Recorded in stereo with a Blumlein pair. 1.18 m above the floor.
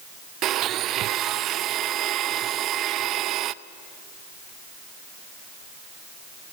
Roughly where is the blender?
Ahead right.